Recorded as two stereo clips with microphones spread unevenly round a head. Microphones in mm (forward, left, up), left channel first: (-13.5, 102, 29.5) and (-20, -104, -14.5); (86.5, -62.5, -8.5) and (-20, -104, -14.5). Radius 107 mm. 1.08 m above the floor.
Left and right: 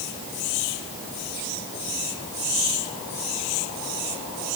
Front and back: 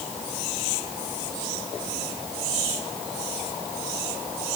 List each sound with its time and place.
Only background noise.